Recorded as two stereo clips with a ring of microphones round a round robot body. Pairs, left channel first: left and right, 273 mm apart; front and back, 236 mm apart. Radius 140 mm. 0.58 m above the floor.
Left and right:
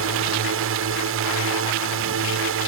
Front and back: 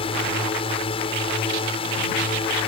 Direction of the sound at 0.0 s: 65° right.